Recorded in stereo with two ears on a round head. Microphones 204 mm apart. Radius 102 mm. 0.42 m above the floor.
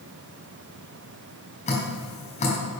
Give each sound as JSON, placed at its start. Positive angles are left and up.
{"t": 1.7, "sound": "dripping", "side_deg": 30, "distance_m": 4.0}